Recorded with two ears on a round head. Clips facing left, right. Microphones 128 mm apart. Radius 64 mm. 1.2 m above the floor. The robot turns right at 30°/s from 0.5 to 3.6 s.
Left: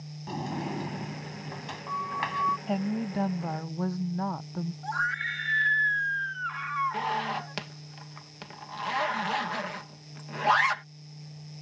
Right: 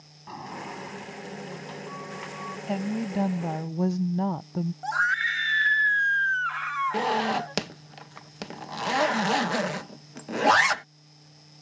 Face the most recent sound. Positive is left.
turn(degrees=-50)  # may be behind; listen again after turning